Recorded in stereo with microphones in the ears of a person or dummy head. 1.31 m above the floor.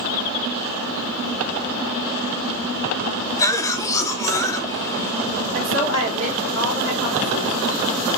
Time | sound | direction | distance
3.4 | a cough | 15° left (ahead or behind) | 0.6 m
5.5 | a woman speaking | 65° right (ahead or behind) | 1.4 m